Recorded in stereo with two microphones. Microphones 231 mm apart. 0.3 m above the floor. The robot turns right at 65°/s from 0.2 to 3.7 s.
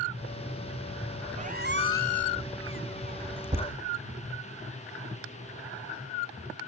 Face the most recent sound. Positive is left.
turn(degrees=-45)  # may be behind; listen again after turning